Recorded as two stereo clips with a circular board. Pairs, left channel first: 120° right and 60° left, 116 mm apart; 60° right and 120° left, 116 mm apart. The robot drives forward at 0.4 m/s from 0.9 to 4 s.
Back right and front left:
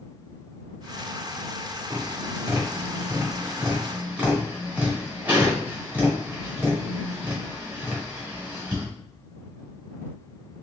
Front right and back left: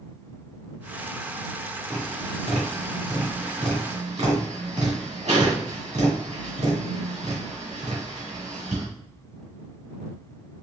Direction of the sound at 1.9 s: 110° left.